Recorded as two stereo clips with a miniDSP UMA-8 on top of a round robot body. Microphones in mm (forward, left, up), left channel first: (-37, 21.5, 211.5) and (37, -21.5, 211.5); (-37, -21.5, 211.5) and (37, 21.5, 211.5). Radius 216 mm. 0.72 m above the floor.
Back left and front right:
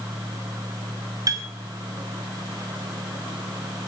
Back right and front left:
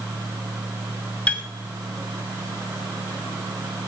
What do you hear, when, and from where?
1.3 s a piano: 75° right, 2 m